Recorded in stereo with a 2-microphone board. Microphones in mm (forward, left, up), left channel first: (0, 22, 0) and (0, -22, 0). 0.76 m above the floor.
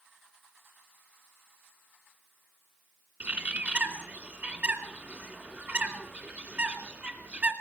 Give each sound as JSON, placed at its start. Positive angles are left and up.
{"t": 3.2, "sound": "a bird", "side_deg": -35, "distance_m": 2.5}